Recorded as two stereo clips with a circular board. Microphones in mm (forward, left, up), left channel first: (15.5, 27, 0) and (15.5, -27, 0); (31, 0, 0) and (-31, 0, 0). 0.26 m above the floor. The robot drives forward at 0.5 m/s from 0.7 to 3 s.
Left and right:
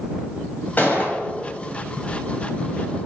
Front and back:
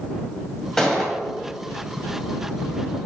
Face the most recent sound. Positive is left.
turn(degrees=150)